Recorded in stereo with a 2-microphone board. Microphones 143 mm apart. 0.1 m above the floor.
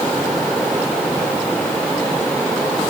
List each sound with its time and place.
Only background noise.